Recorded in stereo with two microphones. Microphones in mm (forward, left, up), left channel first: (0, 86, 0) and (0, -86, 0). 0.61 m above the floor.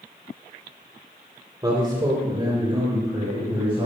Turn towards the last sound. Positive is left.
turn(degrees=-30)  # may be behind; listen again after turning